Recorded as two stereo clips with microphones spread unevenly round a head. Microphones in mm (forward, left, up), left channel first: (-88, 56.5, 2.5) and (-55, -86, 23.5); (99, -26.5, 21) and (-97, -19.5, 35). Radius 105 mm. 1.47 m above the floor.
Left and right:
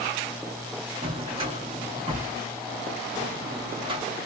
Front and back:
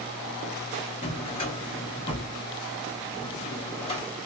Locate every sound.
1.0 s a drawer: 55° right, 1.0 m